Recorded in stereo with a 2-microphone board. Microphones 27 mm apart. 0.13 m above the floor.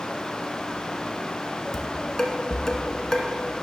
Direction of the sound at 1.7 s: 20° left (ahead or behind).